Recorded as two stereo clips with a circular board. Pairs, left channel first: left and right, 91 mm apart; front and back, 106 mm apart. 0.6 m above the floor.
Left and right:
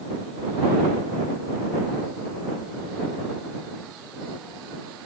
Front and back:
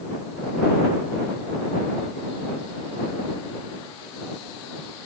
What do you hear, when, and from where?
Only background noise.